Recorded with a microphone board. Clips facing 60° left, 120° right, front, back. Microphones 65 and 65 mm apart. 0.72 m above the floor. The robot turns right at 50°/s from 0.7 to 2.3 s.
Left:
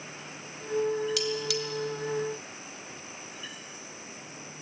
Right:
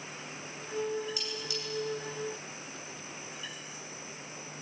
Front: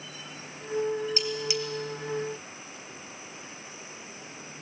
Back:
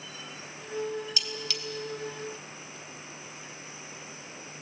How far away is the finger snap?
I don't hear a finger snap.